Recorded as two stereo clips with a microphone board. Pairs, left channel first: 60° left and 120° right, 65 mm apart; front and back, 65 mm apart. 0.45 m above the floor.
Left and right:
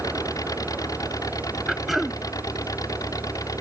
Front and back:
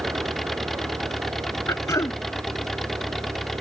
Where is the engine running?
85° left.